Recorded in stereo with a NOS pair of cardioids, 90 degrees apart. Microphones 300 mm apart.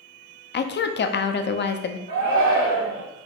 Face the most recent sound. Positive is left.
turn(degrees=-65)